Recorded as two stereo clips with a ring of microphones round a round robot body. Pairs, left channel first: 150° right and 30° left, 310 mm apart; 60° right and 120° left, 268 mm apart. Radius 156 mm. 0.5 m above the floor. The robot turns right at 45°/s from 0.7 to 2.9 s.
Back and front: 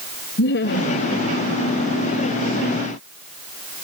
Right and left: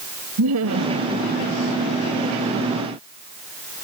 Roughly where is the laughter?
Behind left.